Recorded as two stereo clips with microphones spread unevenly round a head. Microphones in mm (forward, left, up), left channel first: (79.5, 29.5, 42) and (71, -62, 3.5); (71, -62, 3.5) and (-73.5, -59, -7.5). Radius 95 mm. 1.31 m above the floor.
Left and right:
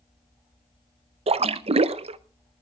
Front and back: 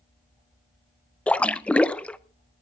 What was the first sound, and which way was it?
A splash, 80° right.